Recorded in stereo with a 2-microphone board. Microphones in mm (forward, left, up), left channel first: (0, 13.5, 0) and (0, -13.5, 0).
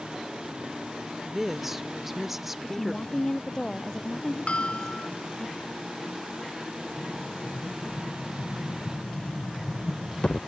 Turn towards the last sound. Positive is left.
turn(degrees=40)  # may be behind; listen again after turning